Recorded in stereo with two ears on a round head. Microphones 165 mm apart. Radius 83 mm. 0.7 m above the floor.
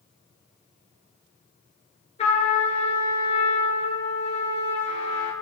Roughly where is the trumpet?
Left.